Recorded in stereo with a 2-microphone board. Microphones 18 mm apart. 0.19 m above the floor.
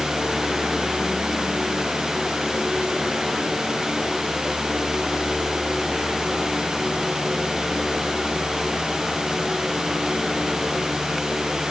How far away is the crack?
No crack in this recording.